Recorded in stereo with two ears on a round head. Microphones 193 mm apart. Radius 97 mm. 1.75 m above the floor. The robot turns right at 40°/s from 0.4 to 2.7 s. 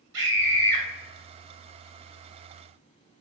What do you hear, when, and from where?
0.1 s a scream: 55° right (ahead or behind), 1.8 m; by 0.8 s 40° right (ahead or behind), 1.8 m